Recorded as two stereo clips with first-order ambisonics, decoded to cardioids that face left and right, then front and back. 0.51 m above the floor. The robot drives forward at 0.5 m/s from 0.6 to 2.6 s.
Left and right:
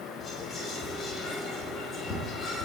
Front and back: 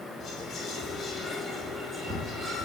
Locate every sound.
0.2 s whispering: 35° left, 0.9 m; by 2.7 s 145° left, 0.9 m